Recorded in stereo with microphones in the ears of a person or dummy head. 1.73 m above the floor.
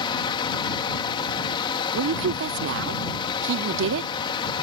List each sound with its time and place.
0.0 s a fan: 30° left (ahead or behind)
1.9 s a woman speaking: 65° right (ahead or behind)